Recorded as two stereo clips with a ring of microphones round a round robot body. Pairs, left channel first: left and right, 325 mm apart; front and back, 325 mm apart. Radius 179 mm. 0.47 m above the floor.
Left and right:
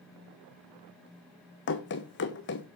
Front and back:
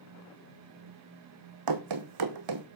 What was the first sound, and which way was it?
Running footsteps, 150° left.